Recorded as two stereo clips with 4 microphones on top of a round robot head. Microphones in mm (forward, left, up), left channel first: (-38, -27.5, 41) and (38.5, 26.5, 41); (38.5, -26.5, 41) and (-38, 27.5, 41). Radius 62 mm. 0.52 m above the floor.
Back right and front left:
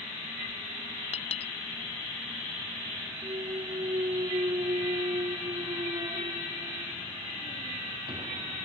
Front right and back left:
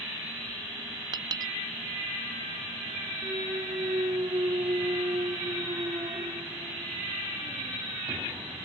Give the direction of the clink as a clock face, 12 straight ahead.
6 o'clock.